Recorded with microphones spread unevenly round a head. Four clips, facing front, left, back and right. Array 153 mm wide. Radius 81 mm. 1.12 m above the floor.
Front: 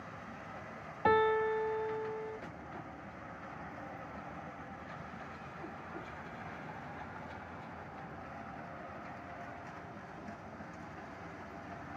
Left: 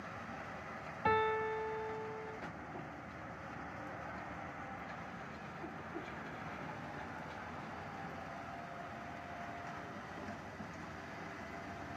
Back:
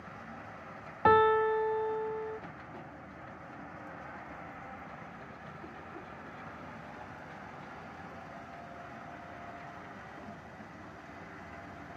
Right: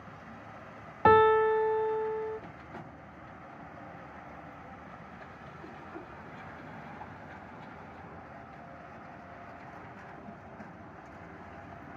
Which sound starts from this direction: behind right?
A piano, at 1.1 s.